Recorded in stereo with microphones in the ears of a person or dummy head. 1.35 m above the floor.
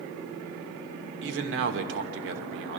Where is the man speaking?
70° right (ahead or behind), 1.2 m.